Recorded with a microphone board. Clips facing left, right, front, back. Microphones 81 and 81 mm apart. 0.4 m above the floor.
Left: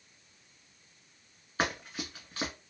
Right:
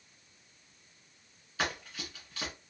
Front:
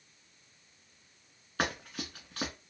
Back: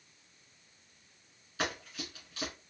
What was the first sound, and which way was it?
Running footsteps, 35° left.